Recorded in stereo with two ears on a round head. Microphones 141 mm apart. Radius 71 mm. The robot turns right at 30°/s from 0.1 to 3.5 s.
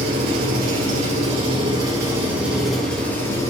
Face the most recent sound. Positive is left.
turn(degrees=25)